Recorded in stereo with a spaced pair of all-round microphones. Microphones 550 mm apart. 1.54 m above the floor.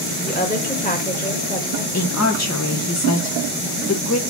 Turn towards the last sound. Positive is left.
turn(degrees=30)  # may be behind; listen again after turning